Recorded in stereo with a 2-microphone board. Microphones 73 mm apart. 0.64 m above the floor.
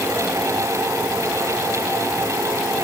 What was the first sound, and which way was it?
Only background noise.